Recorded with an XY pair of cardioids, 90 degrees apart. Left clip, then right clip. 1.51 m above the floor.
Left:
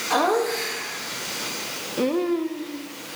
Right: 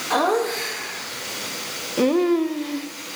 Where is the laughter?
5° right, 1.9 m; by 2.9 s 70° right, 0.7 m.